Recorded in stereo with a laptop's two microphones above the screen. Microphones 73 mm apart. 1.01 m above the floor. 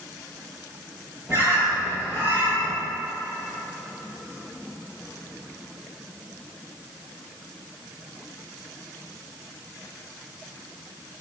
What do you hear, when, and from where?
1.3 s a bird: 30° right (ahead or behind), 4.5 m